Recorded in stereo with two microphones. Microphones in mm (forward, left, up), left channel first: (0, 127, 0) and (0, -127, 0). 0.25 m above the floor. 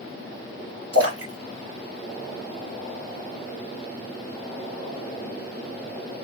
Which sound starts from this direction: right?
A splash, at 0.9 s.